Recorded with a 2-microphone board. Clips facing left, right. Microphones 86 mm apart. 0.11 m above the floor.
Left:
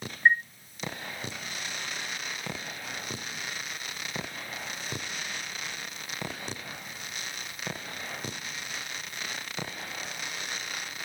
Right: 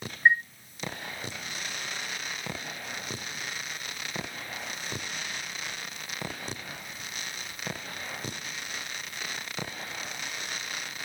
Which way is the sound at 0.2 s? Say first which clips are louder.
Even; 5° right (ahead or behind).